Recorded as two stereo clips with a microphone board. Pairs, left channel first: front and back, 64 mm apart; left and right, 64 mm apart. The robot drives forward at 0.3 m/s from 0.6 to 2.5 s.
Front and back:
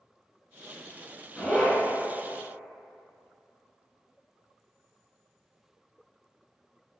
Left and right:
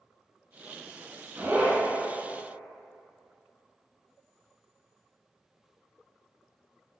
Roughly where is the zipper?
Right.